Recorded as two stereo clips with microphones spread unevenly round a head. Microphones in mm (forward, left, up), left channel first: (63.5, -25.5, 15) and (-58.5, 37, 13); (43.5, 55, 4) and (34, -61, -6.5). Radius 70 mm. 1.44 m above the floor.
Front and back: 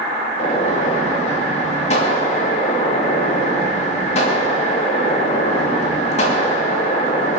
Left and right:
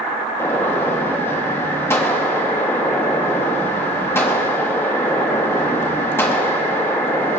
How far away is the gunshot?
About 2.5 m.